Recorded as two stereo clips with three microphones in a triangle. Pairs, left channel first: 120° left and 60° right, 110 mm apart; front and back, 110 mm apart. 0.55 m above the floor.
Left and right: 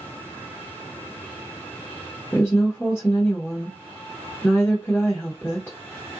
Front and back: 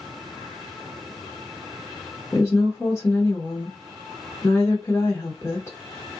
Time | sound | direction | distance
2.3 | a woman speaking | 60° left | 1.1 m